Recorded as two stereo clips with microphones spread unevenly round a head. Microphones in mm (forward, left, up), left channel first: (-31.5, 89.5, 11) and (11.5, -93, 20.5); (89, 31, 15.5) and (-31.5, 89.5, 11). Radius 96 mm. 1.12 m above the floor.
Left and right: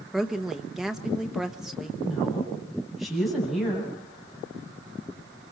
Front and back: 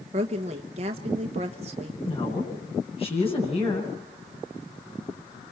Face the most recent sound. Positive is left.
turn(degrees=15)